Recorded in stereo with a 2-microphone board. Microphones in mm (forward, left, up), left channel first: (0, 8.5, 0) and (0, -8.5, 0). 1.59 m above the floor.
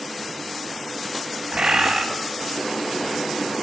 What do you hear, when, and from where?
1.5 s a bird: 60° right (ahead or behind), 8 m